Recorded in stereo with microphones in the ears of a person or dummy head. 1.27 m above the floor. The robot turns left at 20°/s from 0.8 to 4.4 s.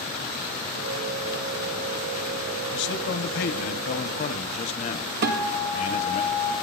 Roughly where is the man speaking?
Left.